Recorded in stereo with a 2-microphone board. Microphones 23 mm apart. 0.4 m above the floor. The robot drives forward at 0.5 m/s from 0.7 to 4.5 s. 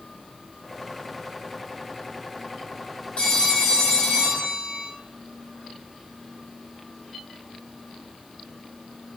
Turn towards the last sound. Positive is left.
turn(degrees=40)  # may be behind; listen again after turning